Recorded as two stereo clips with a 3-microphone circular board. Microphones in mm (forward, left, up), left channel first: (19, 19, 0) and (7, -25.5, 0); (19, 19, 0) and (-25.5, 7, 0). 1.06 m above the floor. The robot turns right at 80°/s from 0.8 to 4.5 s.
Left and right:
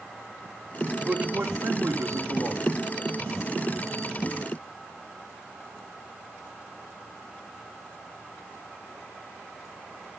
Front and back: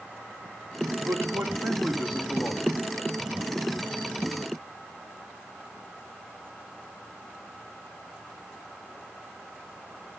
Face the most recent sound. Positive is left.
turn(degrees=105)